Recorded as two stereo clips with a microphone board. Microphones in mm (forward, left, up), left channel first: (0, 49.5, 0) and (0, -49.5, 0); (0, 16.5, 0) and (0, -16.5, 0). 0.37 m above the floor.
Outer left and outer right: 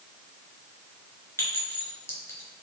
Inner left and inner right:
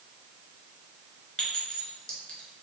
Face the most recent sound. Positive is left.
turn(degrees=25)  # may be behind; listen again after turning